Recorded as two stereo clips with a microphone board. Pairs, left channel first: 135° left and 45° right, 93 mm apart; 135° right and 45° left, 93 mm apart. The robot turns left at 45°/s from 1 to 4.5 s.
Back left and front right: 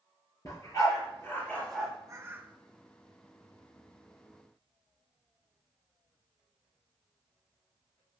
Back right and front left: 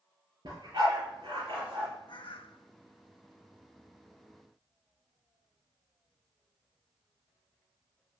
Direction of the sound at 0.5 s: 85° left.